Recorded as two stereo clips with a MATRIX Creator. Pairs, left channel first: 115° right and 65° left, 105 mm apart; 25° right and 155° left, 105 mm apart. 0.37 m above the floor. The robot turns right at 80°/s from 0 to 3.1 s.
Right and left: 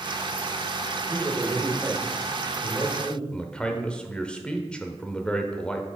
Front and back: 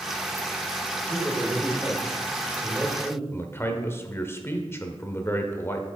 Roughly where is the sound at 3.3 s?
Ahead right.